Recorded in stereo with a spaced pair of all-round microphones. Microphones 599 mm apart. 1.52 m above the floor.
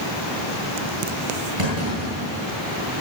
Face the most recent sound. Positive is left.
turn(degrees=-50)  # may be behind; listen again after turning